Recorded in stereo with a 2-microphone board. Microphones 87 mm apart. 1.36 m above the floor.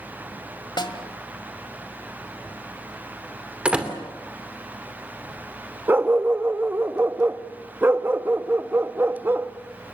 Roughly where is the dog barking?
Right.